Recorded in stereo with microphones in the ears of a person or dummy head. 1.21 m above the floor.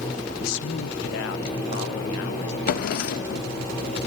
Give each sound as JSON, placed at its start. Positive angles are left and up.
{"t": 0.4, "sound": "a man speaking", "side_deg": 75, "distance_m": 0.7}
{"t": 2.7, "sound": "a drawer", "side_deg": 55, "distance_m": 0.7}